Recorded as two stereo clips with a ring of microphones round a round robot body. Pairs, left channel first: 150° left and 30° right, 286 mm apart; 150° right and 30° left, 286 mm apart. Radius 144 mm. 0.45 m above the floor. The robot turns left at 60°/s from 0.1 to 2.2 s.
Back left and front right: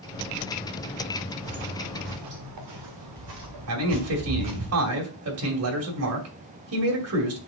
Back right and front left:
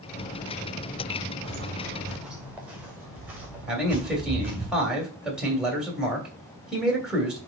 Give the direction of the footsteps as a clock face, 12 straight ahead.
12 o'clock.